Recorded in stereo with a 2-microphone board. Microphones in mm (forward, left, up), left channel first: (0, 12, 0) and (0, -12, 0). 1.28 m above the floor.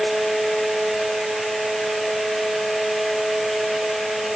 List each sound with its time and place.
Only background noise.